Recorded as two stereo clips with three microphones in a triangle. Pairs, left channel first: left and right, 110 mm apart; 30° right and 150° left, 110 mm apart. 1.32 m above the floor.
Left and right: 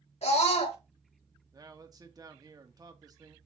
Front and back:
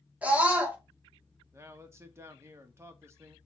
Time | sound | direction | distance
0.2 | a scream | 75° left | 2.5 m
1.5 | a man speaking | 145° right | 1.4 m